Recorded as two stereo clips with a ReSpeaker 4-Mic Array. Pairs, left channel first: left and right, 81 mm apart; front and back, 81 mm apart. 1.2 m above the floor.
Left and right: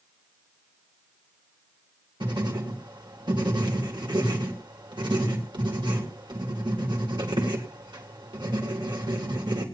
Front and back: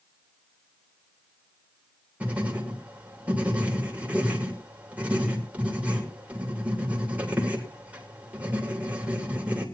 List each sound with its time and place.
2.2 s writing: 110° right, 3 m